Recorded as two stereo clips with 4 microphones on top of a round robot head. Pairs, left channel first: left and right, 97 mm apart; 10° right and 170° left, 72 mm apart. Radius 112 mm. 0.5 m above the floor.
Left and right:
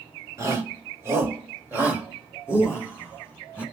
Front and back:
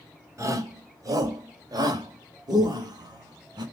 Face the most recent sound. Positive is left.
turn(degrees=-165)